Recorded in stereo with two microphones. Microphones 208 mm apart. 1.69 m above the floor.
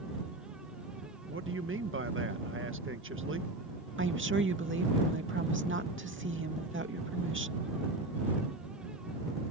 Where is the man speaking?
75° right (ahead or behind).